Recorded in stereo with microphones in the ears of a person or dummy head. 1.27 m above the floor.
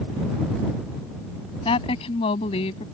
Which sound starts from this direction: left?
A woman speaking, at 1.6 s.